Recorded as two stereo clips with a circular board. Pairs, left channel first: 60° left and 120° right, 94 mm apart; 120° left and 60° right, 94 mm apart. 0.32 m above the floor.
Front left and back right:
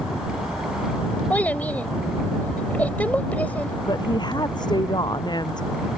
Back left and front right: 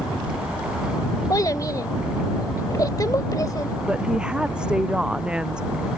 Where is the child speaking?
125° left.